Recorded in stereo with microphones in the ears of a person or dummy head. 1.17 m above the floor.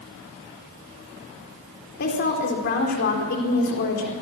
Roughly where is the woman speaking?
Left.